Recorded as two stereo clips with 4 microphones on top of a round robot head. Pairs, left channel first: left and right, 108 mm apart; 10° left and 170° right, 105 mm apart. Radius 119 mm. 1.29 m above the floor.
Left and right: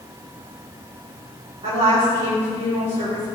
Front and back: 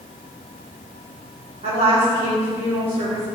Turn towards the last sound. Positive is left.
turn(degrees=-130)